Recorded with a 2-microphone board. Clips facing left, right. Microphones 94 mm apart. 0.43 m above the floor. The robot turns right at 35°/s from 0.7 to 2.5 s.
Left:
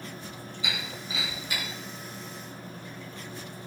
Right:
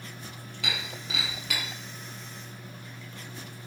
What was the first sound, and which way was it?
Breaking glass, 70° right (ahead or behind).